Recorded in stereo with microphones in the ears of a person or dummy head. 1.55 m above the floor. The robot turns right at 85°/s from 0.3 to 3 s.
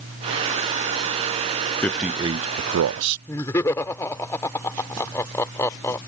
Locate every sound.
1.8 s a man speaking: 165° left; by 3.2 s 95° right
3.3 s laughter: 15° left (ahead or behind)